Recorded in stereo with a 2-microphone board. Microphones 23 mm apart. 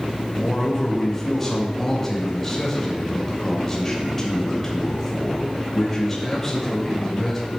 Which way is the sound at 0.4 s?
10° left (ahead or behind).